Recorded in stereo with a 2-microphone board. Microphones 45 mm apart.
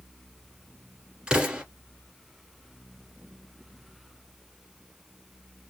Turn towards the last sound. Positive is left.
turn(degrees=-20)  # may be behind; listen again after turning